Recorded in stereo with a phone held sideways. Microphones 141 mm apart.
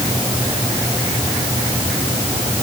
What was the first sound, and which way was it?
Only background noise.